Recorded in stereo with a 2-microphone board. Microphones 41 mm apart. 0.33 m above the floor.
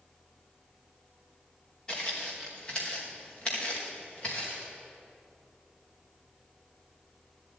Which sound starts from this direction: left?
Footsteps, at 1.9 s.